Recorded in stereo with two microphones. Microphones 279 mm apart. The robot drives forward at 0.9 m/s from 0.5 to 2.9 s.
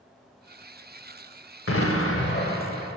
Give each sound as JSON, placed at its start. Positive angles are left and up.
{"t": 1.7, "sound": "an explosion", "side_deg": 55, "distance_m": 0.6}